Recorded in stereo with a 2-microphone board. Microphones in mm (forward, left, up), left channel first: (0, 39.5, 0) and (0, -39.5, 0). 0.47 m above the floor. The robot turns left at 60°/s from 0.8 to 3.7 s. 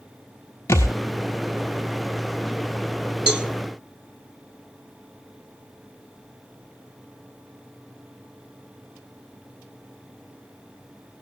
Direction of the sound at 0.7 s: 35° left (ahead or behind).